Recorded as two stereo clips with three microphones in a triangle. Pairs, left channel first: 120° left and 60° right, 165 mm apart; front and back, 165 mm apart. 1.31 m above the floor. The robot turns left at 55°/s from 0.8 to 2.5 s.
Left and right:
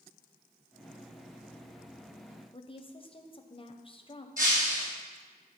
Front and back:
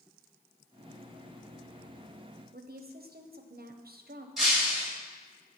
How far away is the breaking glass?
About 3 m.